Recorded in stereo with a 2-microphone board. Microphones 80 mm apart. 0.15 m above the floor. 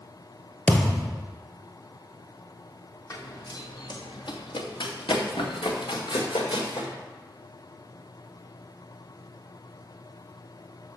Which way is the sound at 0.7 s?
20° left (ahead or behind).